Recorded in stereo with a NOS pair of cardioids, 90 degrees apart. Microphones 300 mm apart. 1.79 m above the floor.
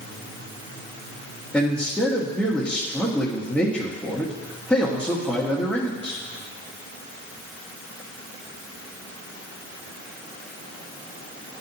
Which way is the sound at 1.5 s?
5° left.